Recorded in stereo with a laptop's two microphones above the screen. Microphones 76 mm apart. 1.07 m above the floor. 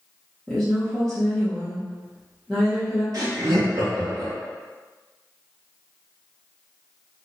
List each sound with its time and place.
0.5 s a woman speaking: 5° left (ahead or behind), 0.6 m
3.1 s laughter: 50° right (ahead or behind), 1.1 m